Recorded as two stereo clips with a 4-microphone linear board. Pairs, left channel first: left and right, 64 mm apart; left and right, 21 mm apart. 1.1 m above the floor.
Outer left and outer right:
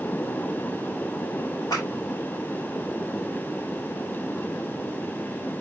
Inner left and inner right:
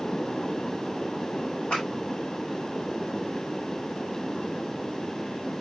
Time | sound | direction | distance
1.7 | a clap | 80° left | 9 m